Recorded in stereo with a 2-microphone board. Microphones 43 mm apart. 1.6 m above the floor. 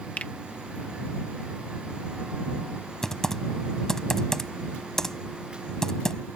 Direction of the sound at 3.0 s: 10° left (ahead or behind).